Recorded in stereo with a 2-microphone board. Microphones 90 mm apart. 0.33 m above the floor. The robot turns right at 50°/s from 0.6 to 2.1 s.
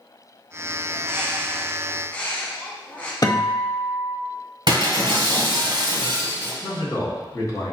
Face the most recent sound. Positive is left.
turn(degrees=40)  # may be behind; listen again after turning